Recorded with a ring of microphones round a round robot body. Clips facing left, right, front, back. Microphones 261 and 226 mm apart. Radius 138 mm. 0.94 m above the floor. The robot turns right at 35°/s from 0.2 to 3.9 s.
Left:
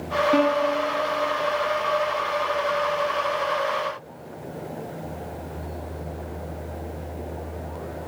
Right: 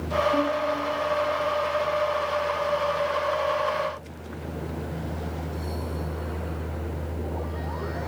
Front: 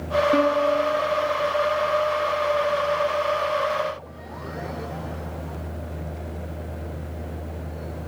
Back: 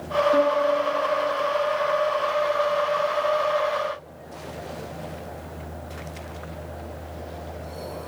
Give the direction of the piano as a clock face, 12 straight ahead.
10 o'clock.